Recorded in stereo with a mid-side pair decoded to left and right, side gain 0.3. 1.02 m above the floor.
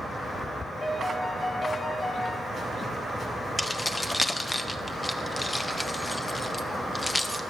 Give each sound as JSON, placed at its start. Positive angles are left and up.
{"t": 0.8, "sound": "a piano", "azimuth_deg": 40, "distance_m": 5.5}
{"t": 3.6, "sound": "keys jangling", "azimuth_deg": 25, "distance_m": 1.4}